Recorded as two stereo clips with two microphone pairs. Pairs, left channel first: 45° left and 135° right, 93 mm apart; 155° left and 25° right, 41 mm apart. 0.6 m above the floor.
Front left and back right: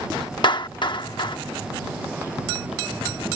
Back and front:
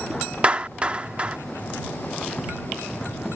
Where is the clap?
35° left.